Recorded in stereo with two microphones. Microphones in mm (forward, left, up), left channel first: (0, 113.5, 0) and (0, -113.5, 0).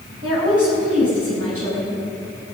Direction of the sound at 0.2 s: 75° right (ahead or behind).